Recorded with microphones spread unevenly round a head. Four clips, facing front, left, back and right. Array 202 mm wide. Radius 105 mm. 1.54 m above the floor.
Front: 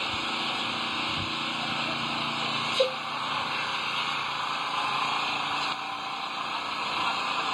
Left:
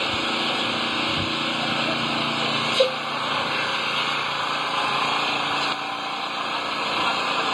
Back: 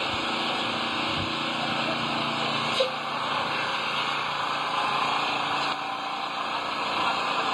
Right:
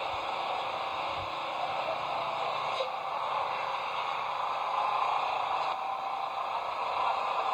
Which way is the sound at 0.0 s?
100° left.